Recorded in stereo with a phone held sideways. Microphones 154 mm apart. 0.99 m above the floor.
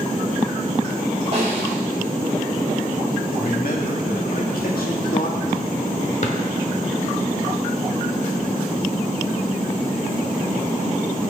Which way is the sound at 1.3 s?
45° right (ahead or behind).